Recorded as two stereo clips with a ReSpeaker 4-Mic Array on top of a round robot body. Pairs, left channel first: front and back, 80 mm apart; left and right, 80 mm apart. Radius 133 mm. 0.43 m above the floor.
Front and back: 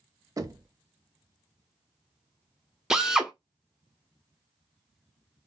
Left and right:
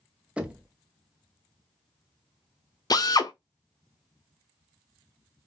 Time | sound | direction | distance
0.4 | knocking | 160° right | 0.8 m
2.9 | a drill | 100° left | 0.8 m